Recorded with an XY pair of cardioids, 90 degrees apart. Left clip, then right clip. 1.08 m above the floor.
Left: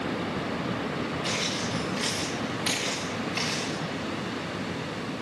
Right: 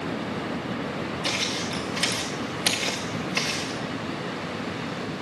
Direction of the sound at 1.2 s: 50° right.